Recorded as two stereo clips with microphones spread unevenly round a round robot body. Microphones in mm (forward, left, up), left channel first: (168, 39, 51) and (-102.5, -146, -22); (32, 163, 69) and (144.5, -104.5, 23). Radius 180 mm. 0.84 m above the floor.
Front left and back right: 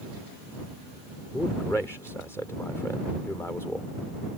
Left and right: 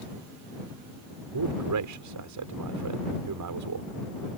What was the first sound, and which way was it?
A man speaking, 50° right.